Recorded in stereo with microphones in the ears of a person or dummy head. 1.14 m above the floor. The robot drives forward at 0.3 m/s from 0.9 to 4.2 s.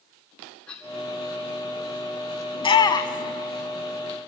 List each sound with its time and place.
0.7 s a cough: 10° left (ahead or behind), 3.5 m
2.5 s a shout: 20° left (ahead or behind), 1.0 m